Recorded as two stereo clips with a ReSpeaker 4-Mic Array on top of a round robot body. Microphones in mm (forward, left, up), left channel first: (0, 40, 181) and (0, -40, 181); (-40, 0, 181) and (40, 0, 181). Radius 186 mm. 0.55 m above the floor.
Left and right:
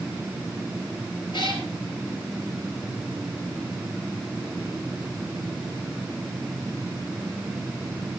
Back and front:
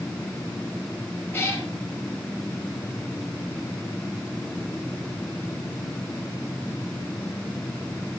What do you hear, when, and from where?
1.3 s a cat meowing: 115° left, 6.5 m